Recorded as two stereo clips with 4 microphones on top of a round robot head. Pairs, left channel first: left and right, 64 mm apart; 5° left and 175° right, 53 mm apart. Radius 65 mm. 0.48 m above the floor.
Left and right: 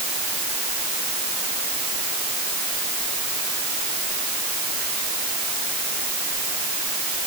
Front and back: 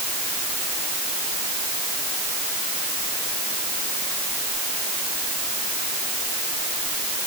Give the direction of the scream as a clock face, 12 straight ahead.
No scream in this recording.